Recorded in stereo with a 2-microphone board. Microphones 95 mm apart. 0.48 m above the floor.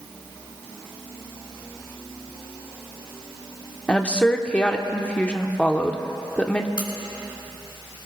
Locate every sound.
3.9 s a woman speaking: 15° left (ahead or behind), 0.9 m
6.8 s a crack: 55° left (ahead or behind), 3 m